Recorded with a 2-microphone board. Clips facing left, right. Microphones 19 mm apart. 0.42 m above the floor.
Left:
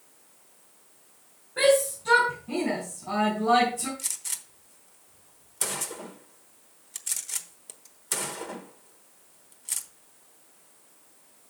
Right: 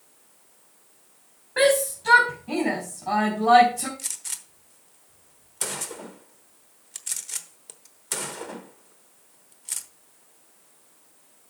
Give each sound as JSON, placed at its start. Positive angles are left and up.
{"t": 1.6, "sound": "a shout", "side_deg": -65, "distance_m": 3.5}
{"t": 4.0, "sound": "a gunshot", "side_deg": -5, "distance_m": 0.9}